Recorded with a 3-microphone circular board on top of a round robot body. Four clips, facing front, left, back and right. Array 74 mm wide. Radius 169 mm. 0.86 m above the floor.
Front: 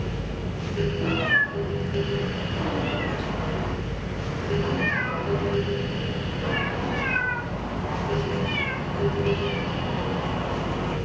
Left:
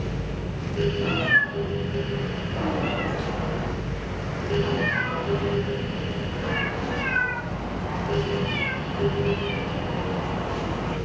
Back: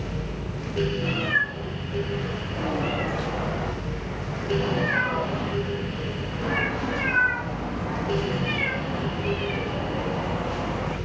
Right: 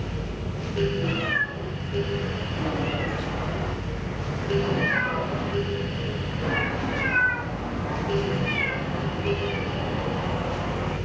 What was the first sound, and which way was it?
A cat meowing, 55° left.